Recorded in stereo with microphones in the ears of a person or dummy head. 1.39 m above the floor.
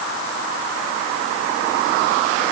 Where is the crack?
No crack in this recording.